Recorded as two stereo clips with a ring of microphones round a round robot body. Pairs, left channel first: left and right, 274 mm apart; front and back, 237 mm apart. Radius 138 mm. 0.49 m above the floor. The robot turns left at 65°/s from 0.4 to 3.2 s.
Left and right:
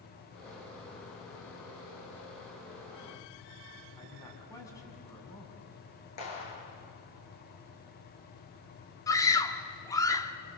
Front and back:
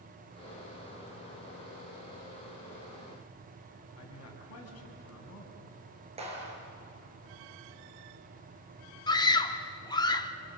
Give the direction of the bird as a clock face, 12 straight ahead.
I don't hear a bird.